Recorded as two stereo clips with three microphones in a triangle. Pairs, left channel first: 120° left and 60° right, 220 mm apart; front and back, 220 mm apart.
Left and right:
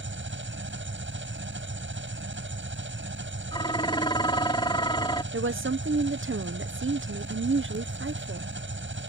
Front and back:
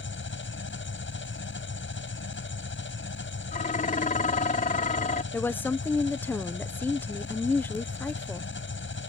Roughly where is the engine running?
Ahead right.